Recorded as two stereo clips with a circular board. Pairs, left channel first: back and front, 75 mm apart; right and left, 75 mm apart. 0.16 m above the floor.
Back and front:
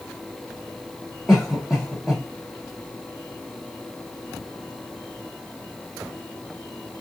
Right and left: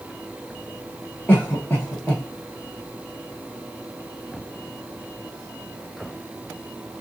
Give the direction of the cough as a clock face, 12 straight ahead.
3 o'clock.